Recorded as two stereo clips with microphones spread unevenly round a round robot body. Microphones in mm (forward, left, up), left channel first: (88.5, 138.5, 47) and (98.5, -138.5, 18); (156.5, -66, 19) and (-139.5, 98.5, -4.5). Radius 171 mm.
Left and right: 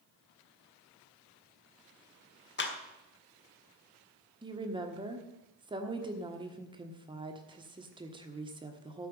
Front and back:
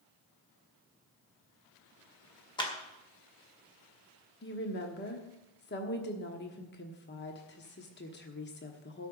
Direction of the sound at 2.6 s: 50° left.